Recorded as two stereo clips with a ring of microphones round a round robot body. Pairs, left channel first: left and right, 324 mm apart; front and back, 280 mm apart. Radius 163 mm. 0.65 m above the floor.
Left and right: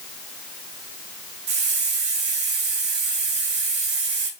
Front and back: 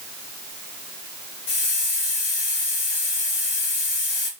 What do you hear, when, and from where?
1.5 s a hiss: 40° right, 1.6 m